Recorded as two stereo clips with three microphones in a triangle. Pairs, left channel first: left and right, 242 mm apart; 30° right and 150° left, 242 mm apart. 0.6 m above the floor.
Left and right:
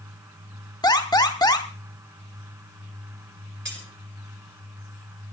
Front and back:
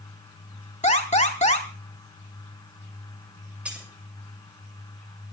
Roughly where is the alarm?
Ahead.